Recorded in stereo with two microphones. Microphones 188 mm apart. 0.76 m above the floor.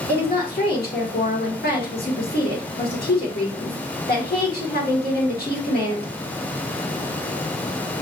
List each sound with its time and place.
0.1 s a woman speaking: 55° left (ahead or behind), 1.7 m